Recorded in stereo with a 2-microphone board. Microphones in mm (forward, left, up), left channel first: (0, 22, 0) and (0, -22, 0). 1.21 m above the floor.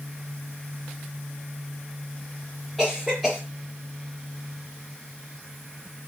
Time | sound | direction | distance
2.8 | a cough | 5° left (ahead or behind) | 1.0 m